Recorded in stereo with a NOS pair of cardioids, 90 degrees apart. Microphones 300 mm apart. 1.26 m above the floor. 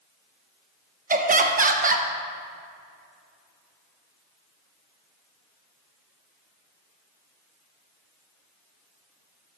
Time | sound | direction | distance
1.1 | laughter | 25° right | 1.2 m